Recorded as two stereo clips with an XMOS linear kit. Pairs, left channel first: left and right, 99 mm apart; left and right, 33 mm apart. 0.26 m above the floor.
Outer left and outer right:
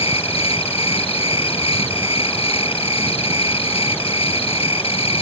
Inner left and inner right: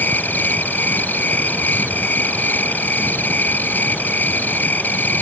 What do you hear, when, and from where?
0.0 s an insect: 70° left (ahead or behind)